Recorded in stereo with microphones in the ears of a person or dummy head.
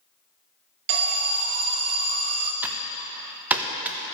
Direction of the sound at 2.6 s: 10° right (ahead or behind).